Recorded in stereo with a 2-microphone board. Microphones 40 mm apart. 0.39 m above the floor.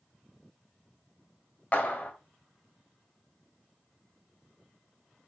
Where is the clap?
35° left (ahead or behind), 1.9 m.